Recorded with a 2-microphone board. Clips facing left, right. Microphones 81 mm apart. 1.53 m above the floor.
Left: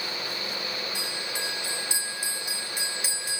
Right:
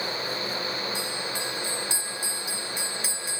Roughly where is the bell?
Centre.